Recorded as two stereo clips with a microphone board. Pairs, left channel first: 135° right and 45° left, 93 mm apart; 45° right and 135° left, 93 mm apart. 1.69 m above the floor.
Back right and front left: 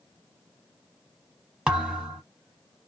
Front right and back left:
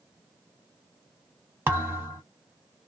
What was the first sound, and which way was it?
A thud, 110° left.